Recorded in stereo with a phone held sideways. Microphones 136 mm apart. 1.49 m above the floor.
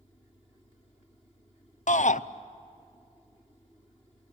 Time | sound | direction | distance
1.9 | a shout | 65° left (ahead or behind) | 0.6 m